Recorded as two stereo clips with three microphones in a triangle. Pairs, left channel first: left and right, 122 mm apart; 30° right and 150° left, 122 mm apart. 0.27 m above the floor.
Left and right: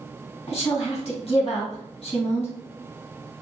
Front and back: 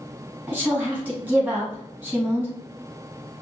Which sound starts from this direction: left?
A woman speaking, at 0.5 s.